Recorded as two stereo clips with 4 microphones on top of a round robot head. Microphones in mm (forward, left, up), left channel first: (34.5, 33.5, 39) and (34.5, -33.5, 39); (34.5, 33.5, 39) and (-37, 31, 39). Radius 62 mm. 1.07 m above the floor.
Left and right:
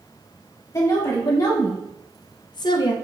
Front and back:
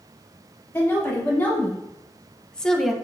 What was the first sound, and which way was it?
A woman speaking, 60° left.